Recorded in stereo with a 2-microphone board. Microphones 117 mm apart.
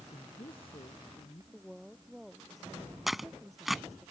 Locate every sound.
0.1 s a man speaking: 45° left (ahead or behind)
1.5 s a woman speaking: centre (ahead or behind)
3.1 s tearing paper: centre (ahead or behind)